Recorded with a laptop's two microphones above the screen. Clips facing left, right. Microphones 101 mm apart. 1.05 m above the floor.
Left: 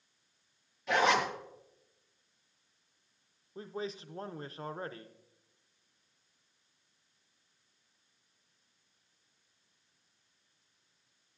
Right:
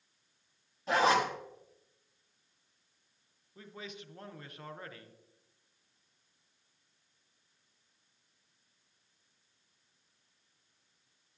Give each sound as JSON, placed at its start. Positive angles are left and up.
{"t": 0.9, "sound": "a zipper", "side_deg": -30, "distance_m": 1.2}
{"t": 3.5, "sound": "a man speaking", "side_deg": 30, "distance_m": 0.5}